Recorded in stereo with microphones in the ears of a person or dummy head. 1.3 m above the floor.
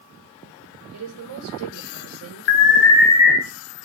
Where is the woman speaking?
85° right, 1.3 m.